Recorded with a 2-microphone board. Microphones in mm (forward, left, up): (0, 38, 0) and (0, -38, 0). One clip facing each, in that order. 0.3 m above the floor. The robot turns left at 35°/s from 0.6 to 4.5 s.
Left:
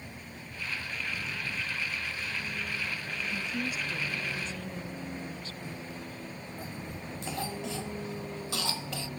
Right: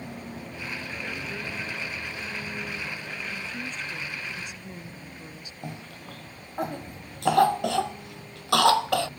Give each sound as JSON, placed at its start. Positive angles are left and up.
{"t": 0.0, "sound": "a vehicle", "azimuth_deg": -75}
{"t": 3.2, "sound": "a woman speaking", "azimuth_deg": 25}
{"t": 5.6, "sound": "a cough", "side_deg": -75}